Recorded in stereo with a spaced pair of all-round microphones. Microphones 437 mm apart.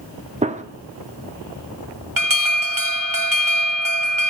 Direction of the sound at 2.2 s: 50° right (ahead or behind).